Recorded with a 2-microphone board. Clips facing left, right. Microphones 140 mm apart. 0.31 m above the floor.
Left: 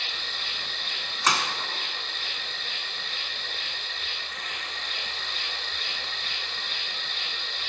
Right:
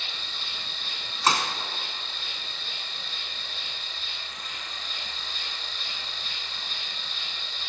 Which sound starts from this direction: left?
An insect, at 0.0 s.